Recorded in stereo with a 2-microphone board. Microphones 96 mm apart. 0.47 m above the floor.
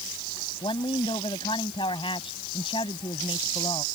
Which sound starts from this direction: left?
A woman speaking, at 0.6 s.